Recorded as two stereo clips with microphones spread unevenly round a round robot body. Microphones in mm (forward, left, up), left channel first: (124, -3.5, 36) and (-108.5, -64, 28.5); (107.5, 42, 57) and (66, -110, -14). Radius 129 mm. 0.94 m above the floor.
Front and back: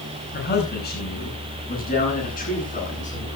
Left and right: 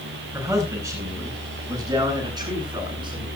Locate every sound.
0.3 s a man speaking: 40° right, 9.5 m; by 3.3 s 45° right, 11 m